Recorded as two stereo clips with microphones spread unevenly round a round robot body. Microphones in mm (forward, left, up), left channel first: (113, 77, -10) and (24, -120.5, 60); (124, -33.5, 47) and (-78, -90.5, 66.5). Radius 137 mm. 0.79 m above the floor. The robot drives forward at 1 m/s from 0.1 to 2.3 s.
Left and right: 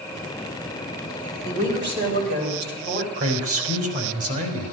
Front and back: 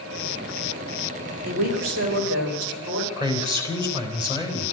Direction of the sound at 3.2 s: 95° right.